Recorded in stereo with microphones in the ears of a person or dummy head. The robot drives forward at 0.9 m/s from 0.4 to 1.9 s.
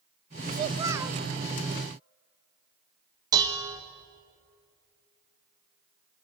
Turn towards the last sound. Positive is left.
turn(degrees=-20)  # may be behind; listen again after turning